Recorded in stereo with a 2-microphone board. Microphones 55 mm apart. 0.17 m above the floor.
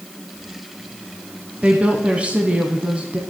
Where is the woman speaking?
25° right (ahead or behind), 1.1 m.